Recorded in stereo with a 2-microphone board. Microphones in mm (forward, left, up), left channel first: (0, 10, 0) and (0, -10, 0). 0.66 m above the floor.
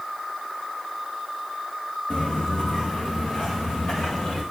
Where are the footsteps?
65° left (ahead or behind), 3.5 m; by 4.4 s 60° left (ahead or behind), 5 m.